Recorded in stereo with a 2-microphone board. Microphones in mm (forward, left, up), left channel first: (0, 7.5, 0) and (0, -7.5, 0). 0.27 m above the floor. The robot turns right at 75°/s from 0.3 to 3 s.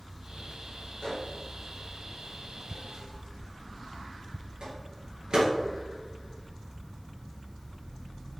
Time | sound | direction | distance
1.0 | a microwave | 75° left (ahead or behind) | 4 m